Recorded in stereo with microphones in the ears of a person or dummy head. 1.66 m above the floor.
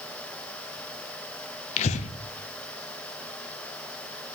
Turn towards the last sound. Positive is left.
turn(degrees=35)  # may be behind; listen again after turning